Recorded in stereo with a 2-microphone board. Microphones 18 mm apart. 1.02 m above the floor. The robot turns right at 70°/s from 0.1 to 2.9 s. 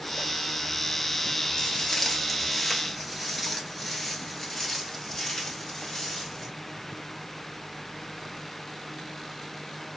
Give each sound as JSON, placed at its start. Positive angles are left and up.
{"t": 1.6, "sound": "footsteps", "side_deg": 45, "distance_m": 1.3}